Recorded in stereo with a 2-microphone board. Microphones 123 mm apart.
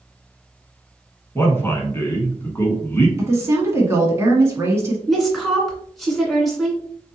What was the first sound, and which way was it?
A man speaking, 20° left (ahead or behind).